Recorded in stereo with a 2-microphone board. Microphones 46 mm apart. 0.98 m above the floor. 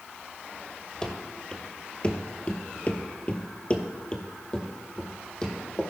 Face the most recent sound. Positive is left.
turn(degrees=15)  # may be behind; listen again after turning